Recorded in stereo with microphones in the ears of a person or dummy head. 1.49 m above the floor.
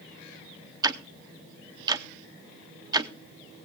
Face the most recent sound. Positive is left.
turn(degrees=-25)  # may be behind; listen again after turning